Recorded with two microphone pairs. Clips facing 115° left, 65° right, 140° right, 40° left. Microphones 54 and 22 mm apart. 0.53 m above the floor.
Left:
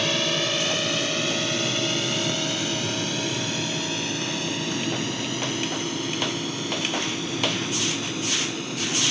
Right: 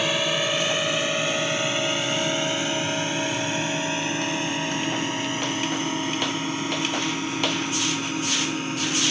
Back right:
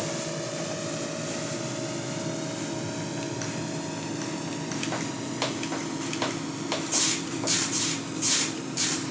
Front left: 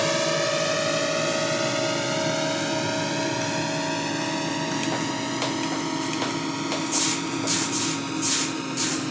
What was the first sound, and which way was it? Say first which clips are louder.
A drone: right 1 dB, front left 9 dB; 10° left.